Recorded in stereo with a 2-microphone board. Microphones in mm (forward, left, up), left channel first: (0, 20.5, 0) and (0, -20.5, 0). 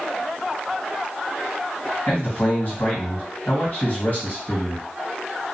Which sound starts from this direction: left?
A man speaking, at 2.1 s.